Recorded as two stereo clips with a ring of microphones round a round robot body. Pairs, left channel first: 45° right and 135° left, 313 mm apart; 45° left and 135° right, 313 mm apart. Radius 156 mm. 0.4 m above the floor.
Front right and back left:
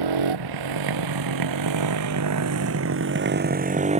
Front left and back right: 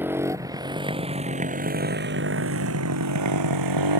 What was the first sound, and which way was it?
A motorcycle, 140° left.